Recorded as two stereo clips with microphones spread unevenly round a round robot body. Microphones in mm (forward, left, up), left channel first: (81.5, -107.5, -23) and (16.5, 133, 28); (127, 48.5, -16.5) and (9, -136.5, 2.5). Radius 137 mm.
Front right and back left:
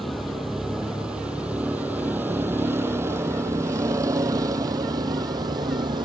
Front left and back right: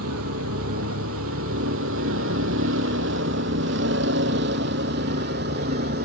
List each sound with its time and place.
0.0 s a vehicle: 165° right; by 6.1 s straight behind